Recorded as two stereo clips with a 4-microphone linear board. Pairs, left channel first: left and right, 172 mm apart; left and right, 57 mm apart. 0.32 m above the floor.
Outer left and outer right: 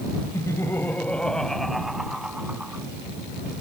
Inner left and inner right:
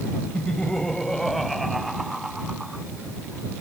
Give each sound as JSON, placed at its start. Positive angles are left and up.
{"t": 0.3, "sound": "laughter", "side_deg": 20}